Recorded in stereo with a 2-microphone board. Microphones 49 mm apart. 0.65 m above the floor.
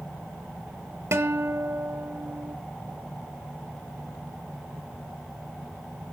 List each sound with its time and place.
1.1 s a guitar: 60° right (ahead or behind), 0.8 m